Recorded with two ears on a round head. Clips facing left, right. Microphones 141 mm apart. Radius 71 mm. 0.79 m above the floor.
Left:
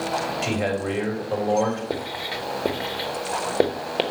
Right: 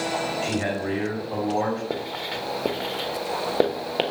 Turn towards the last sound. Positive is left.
turn(degrees=5)  # may be behind; listen again after turning